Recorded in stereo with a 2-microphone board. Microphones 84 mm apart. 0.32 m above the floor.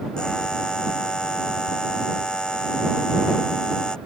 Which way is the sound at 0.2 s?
10° left (ahead or behind).